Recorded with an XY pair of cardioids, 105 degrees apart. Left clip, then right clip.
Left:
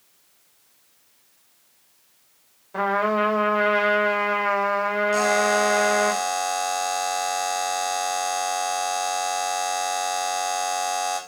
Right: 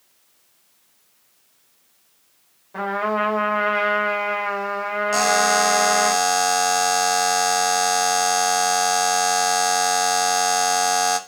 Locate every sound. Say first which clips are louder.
2.7 s a trumpet: left 1 dB; 15° left, 4 m
5.1 s a buzzer: right 4 dB; 65° right, 1.3 m